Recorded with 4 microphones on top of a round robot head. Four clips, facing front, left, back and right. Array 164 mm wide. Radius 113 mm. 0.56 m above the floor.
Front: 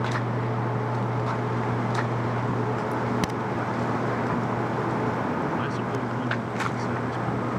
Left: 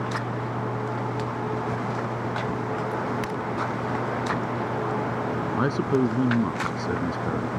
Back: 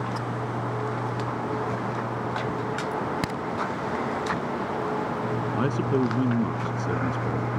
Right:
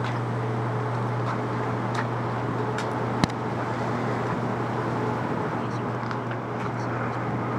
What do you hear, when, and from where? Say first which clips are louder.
2.9 s a crack: right 1 dB, front 2 dB; 85° right
5.6 s a man speaking: left 7 dB, back 4 dB; 125° left